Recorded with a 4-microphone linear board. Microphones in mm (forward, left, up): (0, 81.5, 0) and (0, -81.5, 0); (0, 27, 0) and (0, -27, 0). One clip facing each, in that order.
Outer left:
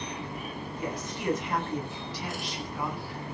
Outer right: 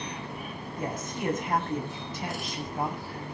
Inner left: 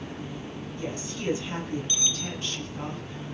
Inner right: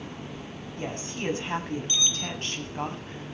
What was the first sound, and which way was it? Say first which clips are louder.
A woman speaking: outer right 3 dB, inner right 2 dB; 50° right (ahead or behind).